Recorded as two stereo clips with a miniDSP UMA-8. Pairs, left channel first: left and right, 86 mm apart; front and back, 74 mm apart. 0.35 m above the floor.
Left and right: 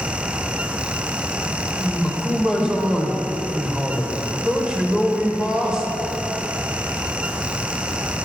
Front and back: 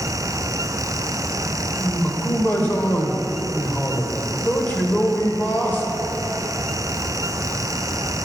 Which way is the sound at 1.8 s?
20° right.